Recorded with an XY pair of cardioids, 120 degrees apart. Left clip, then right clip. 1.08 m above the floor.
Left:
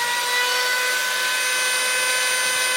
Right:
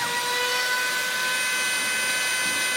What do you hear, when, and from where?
0.0 s a machine running: 25° left, 1.3 m